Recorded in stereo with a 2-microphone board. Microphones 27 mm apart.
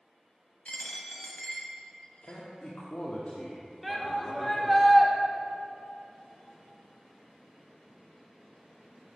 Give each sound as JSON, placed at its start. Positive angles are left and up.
{"t": 0.7, "sound": "a dropped coin", "side_deg": 55, "distance_m": 1.0}
{"t": 2.2, "sound": "a man speaking", "side_deg": 55, "distance_m": 0.9}
{"t": 3.8, "sound": "a shout", "side_deg": 0, "distance_m": 0.8}